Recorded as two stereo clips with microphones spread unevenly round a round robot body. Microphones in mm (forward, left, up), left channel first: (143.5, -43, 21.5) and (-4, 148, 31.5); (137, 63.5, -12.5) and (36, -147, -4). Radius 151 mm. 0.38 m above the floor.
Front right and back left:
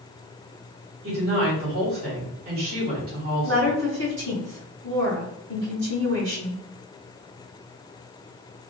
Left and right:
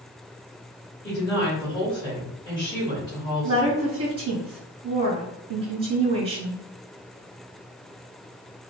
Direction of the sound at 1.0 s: 125° left.